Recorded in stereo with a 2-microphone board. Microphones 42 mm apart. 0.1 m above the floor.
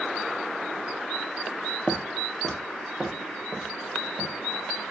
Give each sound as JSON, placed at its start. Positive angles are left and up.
{"t": 1.9, "sound": "footsteps", "side_deg": 15, "distance_m": 0.6}